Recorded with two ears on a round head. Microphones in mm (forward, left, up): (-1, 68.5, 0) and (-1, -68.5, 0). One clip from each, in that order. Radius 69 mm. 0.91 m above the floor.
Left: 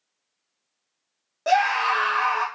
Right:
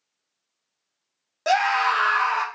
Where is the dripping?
No dripping in this recording.